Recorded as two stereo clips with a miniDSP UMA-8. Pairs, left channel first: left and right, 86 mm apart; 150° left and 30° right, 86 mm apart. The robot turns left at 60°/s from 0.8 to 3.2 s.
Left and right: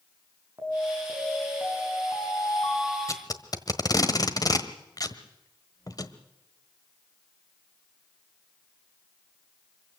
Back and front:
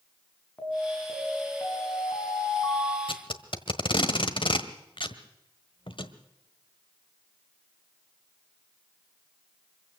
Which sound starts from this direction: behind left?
Tape being pulled, at 3.1 s.